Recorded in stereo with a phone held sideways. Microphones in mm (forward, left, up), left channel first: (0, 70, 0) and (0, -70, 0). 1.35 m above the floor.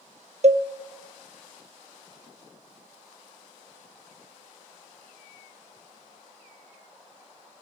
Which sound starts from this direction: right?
A cowbell, at 0.4 s.